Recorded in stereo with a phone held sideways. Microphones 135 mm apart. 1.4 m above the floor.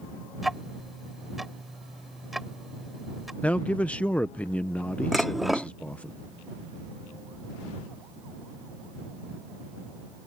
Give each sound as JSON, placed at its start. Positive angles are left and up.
{"t": 0.4, "sound": "ticking", "side_deg": 0}
{"t": 3.4, "sound": "a man speaking", "side_deg": 10}
{"t": 5.1, "sound": "dishes clattering", "side_deg": 0}